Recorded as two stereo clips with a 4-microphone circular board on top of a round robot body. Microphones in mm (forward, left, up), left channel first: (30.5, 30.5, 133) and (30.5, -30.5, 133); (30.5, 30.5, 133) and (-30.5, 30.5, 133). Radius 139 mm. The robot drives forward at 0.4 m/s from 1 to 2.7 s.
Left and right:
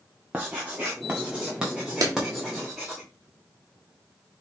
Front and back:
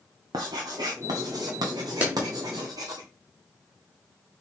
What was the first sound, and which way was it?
Writing, 165° right.